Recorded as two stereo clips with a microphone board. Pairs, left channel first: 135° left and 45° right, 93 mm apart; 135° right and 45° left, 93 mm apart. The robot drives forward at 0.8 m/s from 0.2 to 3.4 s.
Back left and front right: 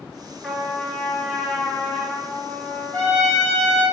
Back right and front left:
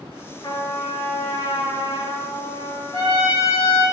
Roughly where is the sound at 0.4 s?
Behind right.